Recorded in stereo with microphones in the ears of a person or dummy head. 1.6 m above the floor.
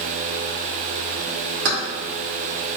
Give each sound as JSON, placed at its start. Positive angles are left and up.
{"t": 1.6, "sound": "keys jangling", "side_deg": -45, "distance_m": 0.7}